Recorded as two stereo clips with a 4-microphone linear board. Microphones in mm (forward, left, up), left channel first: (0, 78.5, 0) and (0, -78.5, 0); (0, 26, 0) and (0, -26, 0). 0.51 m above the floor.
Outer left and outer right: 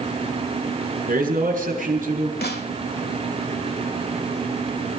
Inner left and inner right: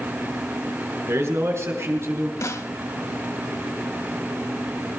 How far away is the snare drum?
About 1.1 m.